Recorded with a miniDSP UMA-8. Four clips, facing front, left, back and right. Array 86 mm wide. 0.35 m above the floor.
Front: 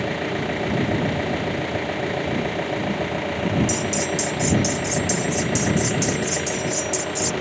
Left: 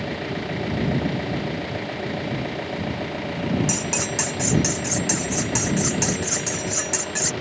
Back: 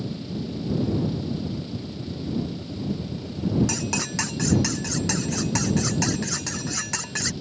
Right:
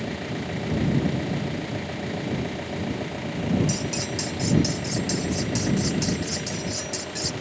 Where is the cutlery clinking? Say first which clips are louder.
Left 2 dB, front 5 dB; 140° left.